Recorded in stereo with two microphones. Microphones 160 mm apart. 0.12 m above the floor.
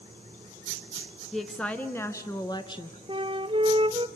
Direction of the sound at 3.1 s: 35° right (ahead or behind).